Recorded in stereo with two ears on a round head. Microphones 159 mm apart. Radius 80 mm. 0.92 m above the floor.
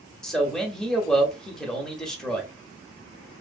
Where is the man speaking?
5° left (ahead or behind), 1.2 m.